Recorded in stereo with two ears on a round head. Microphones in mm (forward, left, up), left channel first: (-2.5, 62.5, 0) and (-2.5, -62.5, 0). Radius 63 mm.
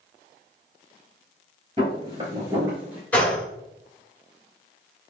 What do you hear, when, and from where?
1.8 s footsteps: 40° right (ahead or behind), 1.9 m; by 3.0 s 15° right (ahead or behind), 1.7 m
3.1 s a gunshot: 10° left (ahead or behind), 1.1 m